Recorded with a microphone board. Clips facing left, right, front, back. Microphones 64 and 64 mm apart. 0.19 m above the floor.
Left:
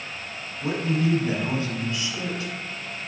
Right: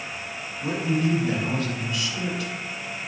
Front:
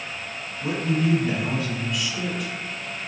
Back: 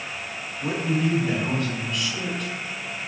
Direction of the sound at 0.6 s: 80° left.